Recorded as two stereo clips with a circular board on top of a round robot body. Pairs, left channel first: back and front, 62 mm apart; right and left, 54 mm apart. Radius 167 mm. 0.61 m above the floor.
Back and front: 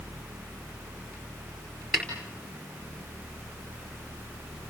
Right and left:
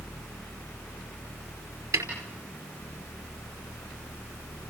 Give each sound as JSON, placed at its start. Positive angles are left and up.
{"t": 1.9, "sound": "a snare drum", "azimuth_deg": 85, "distance_m": 4.5}